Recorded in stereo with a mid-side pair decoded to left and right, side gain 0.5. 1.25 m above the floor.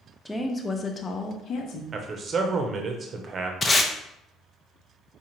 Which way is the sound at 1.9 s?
45° right.